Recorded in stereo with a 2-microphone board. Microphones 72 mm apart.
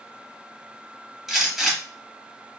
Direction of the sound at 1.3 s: 5° right (ahead or behind).